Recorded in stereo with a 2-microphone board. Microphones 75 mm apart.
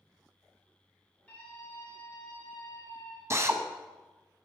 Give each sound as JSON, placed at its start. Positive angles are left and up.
{"t": 1.3, "sound": "a scream", "side_deg": 20, "distance_m": 3.5}
{"t": 3.3, "sound": "a drill", "side_deg": -40, "distance_m": 0.6}